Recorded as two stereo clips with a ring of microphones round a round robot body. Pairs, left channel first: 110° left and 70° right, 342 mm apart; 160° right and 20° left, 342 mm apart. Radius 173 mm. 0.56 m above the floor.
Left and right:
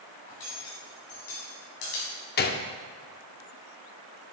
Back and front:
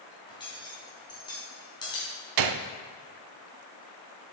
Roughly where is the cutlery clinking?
Behind left.